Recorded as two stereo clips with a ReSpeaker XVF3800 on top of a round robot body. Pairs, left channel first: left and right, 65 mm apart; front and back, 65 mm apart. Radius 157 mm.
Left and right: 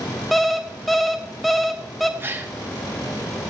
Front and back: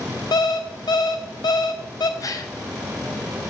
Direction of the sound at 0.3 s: Straight ahead.